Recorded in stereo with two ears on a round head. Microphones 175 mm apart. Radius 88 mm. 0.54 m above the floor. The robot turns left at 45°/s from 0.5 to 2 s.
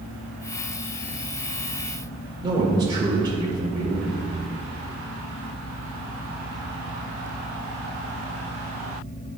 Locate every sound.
2.4 s a man speaking: 20° right (ahead or behind), 1.6 m